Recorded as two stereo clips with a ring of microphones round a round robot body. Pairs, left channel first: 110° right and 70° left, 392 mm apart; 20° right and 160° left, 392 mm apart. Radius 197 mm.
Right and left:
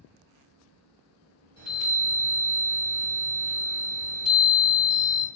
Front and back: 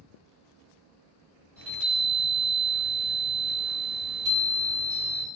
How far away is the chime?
About 1.7 m.